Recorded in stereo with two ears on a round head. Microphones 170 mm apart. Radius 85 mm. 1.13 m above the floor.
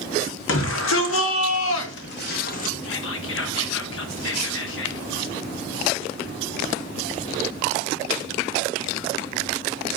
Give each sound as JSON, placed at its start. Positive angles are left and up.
{"t": 0.5, "sound": "a shout", "side_deg": 80, "distance_m": 3.0}
{"t": 2.8, "sound": "whispering", "side_deg": 70, "distance_m": 1.7}